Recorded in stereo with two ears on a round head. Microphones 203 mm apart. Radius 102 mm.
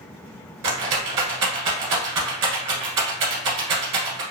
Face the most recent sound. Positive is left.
turn(degrees=-65)  # may be behind; listen again after turning